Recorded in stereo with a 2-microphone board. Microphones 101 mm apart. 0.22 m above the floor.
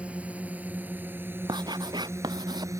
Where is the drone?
10° right (ahead or behind); by 2.8 s 30° right (ahead or behind).